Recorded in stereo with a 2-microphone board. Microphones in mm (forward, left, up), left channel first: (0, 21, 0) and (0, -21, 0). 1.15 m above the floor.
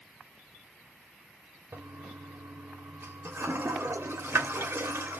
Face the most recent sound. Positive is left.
turn(degrees=-70)  # may be behind; listen again after turning